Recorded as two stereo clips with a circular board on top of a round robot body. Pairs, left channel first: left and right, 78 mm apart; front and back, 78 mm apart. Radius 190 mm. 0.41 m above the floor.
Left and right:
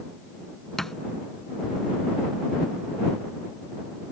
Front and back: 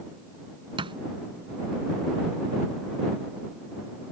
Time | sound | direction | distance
0.8 | a thud | 175° left | ?